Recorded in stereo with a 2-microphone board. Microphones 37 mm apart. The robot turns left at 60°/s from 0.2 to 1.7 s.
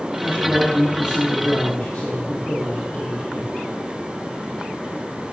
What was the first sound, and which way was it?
A man speaking, 110° right.